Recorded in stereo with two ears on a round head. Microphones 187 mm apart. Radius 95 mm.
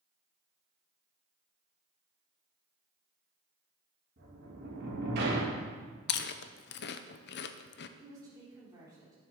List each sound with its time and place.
4.2 s a sliding door: 50° right (ahead or behind), 2.5 m
6.1 s chewing: 55° left (ahead or behind), 0.6 m
8.0 s a woman speaking: 20° right (ahead or behind), 4.5 m